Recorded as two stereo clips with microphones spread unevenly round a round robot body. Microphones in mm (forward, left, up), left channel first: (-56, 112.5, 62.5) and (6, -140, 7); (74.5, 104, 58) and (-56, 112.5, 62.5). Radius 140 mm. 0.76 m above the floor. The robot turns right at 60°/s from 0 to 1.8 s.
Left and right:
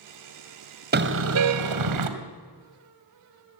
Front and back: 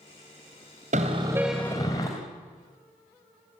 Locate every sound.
0.9 s a car horn: 130° right, 2.5 m; by 2.1 s 80° right, 2.5 m